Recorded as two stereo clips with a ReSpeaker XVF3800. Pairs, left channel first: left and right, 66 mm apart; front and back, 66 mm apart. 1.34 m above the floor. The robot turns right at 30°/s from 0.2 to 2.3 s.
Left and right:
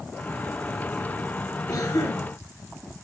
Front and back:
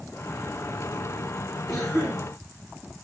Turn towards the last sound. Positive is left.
turn(degrees=105)